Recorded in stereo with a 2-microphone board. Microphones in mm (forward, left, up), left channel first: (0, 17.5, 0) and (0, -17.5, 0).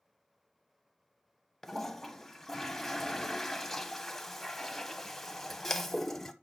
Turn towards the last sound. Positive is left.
turn(degrees=10)  # may be behind; listen again after turning